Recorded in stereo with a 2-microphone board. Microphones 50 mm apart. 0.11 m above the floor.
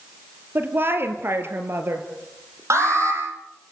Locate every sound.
0.6 s a woman speaking: 45° right (ahead or behind), 3 m
2.7 s an alarm: 70° right (ahead or behind), 6 m